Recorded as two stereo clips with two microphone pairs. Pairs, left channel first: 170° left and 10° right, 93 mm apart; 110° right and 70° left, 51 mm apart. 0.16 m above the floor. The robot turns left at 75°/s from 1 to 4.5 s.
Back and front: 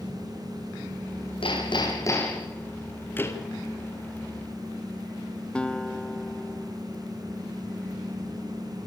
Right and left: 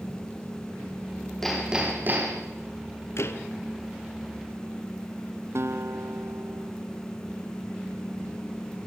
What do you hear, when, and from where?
1.4 s hammering: 165° left, 7 m; by 2.5 s 85° left, 7 m
3.2 s a door slam: 125° right, 2.5 m; by 3.5 s 145° right, 2.5 m
5.5 s a guitar: 90° left, 1.0 m